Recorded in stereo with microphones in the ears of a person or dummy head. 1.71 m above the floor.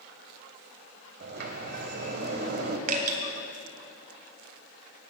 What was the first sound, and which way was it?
A sliding door, 50° right (ahead or behind).